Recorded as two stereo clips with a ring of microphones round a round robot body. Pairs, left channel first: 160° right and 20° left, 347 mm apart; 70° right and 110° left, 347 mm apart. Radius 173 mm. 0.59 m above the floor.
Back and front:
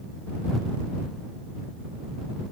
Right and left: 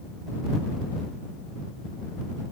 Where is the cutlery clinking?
I don't hear cutlery clinking.